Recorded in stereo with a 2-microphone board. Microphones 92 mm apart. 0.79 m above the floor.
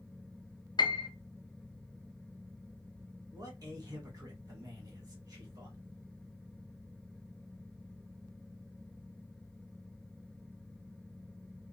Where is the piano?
50° left (ahead or behind), 0.5 m.